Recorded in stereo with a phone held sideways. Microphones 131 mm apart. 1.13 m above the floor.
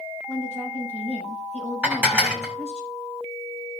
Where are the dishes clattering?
15° right (ahead or behind), 2.5 m.